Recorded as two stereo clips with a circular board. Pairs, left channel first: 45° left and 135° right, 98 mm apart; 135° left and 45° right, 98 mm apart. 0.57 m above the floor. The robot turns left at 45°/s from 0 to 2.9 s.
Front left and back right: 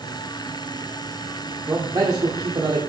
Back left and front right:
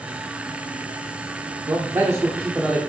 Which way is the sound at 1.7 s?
80° right.